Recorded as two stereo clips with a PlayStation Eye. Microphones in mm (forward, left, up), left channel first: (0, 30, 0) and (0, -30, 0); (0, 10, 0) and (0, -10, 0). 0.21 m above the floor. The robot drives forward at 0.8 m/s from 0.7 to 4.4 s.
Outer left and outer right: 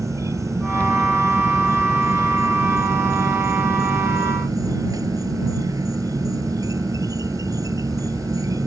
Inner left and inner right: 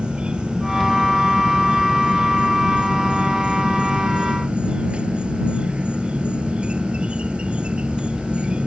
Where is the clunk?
I don't hear a clunk.